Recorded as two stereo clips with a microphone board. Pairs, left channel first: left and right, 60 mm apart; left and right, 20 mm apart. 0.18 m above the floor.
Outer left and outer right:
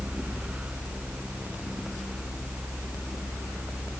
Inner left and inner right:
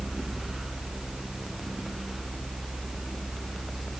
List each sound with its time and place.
Only background noise.